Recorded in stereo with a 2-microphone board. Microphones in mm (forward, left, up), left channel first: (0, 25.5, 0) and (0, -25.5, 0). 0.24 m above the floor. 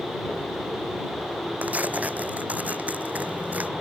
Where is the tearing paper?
30° right (ahead or behind).